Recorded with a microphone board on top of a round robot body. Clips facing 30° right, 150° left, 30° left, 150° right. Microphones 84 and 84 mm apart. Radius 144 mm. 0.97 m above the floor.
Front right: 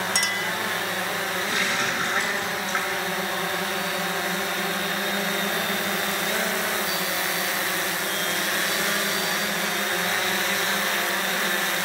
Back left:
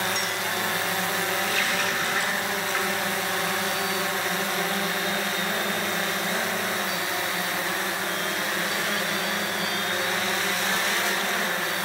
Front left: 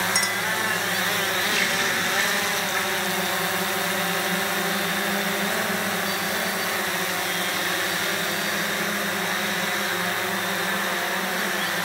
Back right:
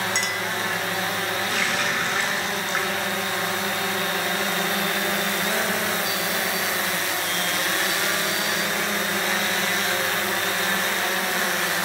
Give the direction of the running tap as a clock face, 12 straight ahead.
3 o'clock.